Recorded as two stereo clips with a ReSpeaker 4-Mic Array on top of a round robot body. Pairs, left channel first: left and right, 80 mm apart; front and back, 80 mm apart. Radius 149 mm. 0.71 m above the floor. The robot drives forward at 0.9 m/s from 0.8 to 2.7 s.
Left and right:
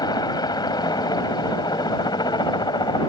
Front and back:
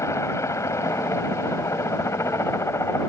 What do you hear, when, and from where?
0.0 s a helicopter: 55° left